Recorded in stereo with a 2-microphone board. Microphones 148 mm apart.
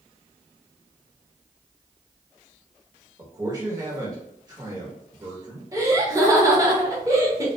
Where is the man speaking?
25° right (ahead or behind), 0.9 m.